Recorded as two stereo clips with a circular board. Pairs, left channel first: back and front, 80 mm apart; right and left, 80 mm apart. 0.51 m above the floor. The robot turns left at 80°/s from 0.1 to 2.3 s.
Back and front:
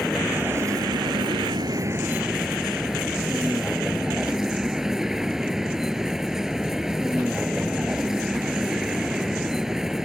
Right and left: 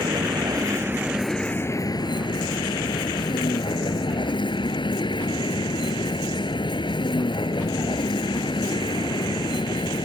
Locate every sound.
0.0 s a vehicle: 90° left; by 10.1 s 85° right